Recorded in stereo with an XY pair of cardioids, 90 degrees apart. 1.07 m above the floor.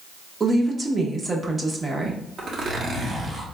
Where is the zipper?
55° right, 1.1 m.